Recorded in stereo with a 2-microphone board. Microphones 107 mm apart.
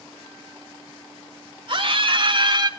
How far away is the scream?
About 1.3 m.